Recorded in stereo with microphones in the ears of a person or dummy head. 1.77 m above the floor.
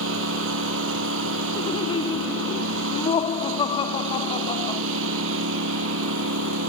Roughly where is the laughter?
Left.